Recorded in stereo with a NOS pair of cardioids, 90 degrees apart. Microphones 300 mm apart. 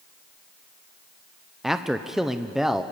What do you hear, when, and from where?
1.6 s a man speaking: straight ahead, 0.7 m